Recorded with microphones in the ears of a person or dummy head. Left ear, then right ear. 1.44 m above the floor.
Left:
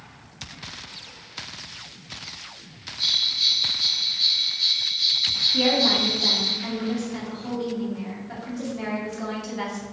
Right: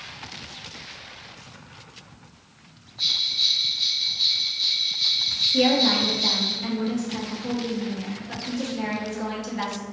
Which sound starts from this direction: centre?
A woman speaking, at 5.5 s.